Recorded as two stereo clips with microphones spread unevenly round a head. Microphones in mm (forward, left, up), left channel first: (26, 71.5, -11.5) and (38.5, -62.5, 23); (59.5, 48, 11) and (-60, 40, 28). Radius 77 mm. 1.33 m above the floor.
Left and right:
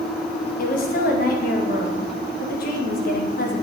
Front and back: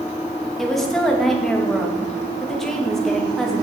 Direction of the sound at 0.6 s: 90° left.